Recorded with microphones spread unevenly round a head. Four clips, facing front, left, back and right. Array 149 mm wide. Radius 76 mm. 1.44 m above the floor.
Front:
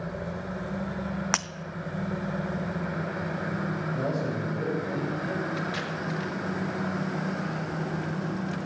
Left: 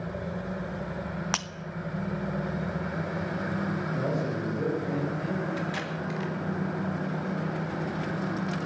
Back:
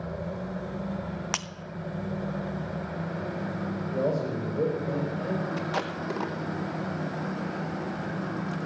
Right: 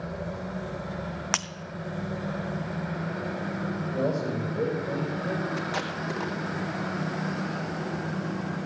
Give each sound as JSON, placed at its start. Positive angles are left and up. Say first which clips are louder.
{"t": 1.3, "sound": "breaking glass", "louder": "right 3 dB, front 7 dB", "azimuth_deg": 0, "distance_m": 0.5}
{"t": 3.9, "sound": "a man speaking", "louder": "right 5 dB, back 4 dB", "azimuth_deg": -150, "distance_m": 6.0}
{"t": 5.6, "sound": "tape being pulled", "louder": "right 1 dB, back 1 dB", "azimuth_deg": -155, "distance_m": 0.9}